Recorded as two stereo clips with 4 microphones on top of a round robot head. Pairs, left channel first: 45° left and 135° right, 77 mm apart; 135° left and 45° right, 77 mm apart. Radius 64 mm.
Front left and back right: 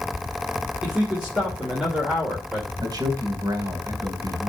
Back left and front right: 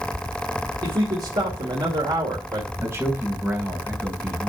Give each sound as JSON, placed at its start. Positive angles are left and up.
{"t": 0.8, "sound": "a man speaking", "azimuth_deg": -60, "distance_m": 2.5}
{"t": 2.8, "sound": "a man speaking", "azimuth_deg": -100, "distance_m": 3.0}